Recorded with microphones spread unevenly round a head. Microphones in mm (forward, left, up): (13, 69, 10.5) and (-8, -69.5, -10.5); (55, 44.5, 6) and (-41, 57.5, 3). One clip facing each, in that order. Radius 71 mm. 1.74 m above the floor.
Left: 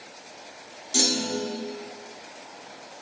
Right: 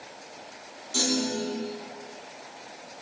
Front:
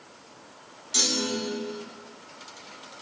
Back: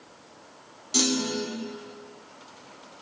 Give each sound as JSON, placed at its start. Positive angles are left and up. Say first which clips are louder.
{"t": 0.9, "sound": "a clunk", "louder": "even, back 3 dB", "azimuth_deg": 140, "distance_m": 1.4}